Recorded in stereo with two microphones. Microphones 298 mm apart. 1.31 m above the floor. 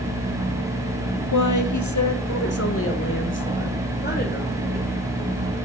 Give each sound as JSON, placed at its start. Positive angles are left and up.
{"t": 1.3, "sound": "a woman speaking", "side_deg": 75, "distance_m": 0.8}